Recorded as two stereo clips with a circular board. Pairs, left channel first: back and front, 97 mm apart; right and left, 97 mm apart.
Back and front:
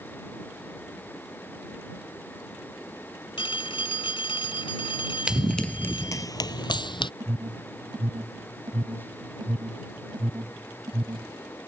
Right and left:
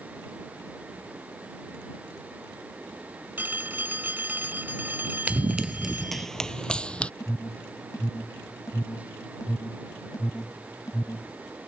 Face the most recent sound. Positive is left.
turn(degrees=-40)